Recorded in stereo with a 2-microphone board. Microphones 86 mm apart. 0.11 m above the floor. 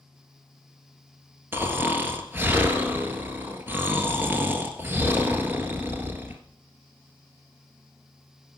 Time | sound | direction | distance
1.5 | snoring | 25° right (ahead or behind) | 1.3 m